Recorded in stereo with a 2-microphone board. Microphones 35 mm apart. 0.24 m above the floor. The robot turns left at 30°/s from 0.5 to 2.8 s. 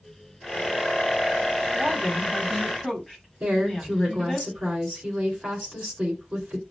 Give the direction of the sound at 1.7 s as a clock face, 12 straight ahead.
5 o'clock.